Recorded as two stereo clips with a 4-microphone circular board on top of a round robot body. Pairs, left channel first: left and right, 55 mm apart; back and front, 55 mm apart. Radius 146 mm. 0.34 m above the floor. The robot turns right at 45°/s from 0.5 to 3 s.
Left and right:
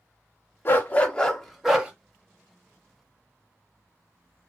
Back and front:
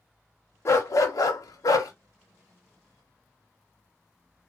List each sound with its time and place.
0.7 s a dog barking: 140° left, 0.7 m; by 1.9 s 165° right, 0.7 m